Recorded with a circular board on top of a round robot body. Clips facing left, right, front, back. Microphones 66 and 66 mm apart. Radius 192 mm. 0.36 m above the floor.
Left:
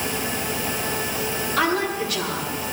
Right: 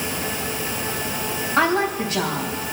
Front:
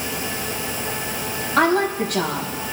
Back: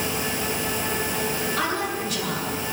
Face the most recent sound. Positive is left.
turn(degrees=-35)